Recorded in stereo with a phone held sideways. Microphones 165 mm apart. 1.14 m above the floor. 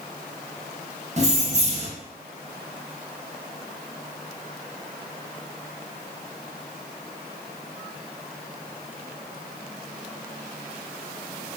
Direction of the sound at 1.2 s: 45° right (ahead or behind).